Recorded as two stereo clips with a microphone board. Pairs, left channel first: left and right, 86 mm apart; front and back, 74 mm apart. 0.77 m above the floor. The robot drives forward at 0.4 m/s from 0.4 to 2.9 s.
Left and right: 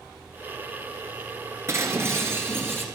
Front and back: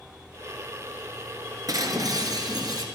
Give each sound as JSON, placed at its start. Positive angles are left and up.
{"t": 1.7, "sound": "breaking glass", "azimuth_deg": -145, "distance_m": 1.7}